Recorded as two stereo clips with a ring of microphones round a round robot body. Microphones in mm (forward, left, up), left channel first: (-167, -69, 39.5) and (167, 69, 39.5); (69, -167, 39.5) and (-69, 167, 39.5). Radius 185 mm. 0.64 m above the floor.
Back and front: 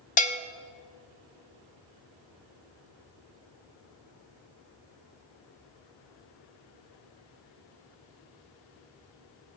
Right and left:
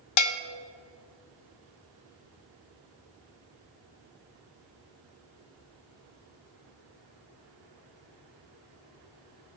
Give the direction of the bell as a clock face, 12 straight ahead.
3 o'clock.